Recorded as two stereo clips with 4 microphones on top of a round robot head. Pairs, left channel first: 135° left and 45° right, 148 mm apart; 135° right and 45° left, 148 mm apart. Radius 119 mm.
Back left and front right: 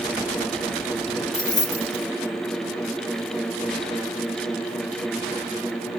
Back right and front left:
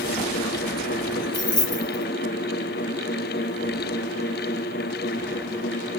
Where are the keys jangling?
165° left, 1.3 m.